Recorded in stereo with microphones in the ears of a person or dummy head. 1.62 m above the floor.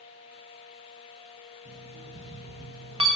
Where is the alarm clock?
30° right (ahead or behind), 1.5 m.